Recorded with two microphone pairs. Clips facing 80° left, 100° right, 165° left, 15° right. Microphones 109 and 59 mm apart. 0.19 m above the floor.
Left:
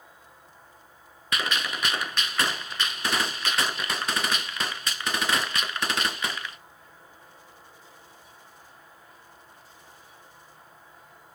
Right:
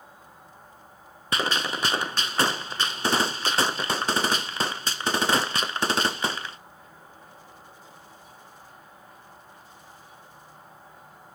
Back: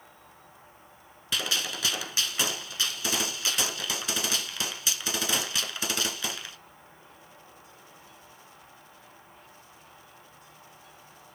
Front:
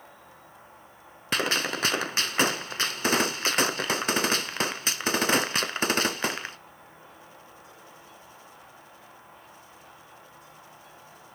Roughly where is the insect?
Ahead right.